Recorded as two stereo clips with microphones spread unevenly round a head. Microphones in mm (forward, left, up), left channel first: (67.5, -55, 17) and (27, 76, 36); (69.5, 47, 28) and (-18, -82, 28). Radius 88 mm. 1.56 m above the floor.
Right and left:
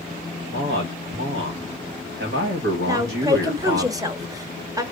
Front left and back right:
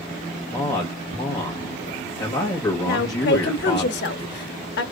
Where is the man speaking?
130° left, 1.6 m.